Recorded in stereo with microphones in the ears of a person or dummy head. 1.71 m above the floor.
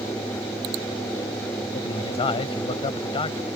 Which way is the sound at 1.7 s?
30° left (ahead or behind).